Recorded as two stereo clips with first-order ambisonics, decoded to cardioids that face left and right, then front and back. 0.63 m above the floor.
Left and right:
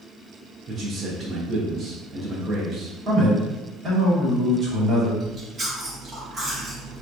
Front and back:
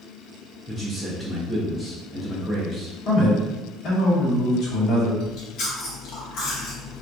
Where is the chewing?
25° right, 0.9 m.